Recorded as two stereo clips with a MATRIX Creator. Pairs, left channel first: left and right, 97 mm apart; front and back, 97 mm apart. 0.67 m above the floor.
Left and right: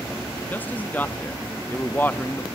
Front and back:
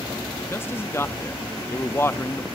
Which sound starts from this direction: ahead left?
A man speaking, at 0.5 s.